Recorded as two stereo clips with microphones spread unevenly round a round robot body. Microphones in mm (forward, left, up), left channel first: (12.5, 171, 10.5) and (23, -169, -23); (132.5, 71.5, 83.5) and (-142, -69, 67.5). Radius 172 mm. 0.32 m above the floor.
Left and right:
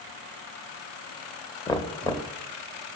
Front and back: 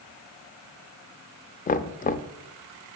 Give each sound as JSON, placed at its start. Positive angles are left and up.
{"t": 1.7, "sound": "knocking", "azimuth_deg": 15, "distance_m": 0.5}